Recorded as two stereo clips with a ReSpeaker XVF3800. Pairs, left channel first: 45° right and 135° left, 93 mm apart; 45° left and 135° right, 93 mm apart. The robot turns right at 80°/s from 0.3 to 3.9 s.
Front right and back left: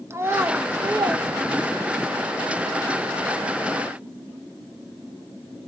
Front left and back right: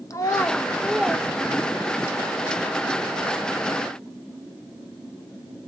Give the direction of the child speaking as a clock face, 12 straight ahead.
9 o'clock.